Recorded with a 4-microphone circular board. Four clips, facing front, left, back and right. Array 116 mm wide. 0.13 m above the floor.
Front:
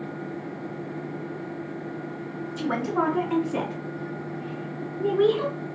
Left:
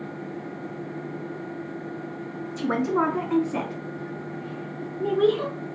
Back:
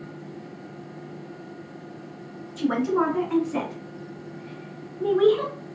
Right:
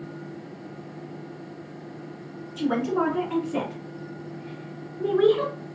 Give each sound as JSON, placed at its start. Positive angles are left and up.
{"t": 2.6, "sound": "a woman speaking", "azimuth_deg": 90, "distance_m": 1.6}